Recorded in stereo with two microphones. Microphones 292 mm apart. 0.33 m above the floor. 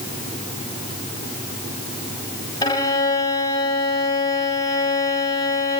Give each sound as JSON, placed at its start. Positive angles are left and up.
{"t": 2.6, "sound": "a violin", "side_deg": 15, "distance_m": 1.5}